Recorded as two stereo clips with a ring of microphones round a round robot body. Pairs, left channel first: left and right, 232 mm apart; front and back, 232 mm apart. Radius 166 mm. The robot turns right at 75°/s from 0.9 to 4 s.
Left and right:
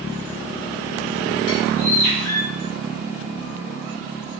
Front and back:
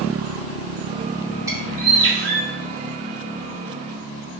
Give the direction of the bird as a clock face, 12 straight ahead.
9 o'clock.